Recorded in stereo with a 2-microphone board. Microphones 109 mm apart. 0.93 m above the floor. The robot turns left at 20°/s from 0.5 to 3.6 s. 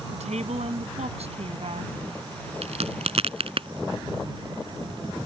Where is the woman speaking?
85° right; by 1.9 s 60° right (ahead or behind).